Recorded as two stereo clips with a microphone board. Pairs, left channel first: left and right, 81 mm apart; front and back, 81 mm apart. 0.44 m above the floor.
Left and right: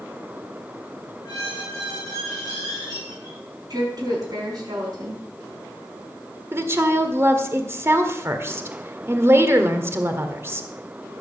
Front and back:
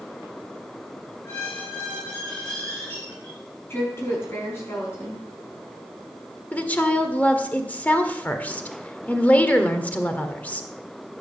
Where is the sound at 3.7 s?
55° right, 5 m.